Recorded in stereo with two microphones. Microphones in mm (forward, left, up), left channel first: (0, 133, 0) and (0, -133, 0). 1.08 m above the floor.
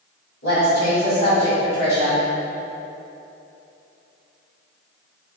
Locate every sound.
0.4 s a woman speaking: 80° left, 1.9 m